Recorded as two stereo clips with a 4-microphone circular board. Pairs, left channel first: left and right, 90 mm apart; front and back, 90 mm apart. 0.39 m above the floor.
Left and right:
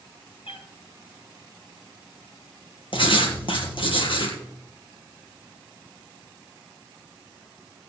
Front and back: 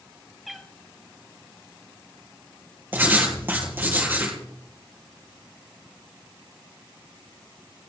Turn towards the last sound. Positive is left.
turn(degrees=110)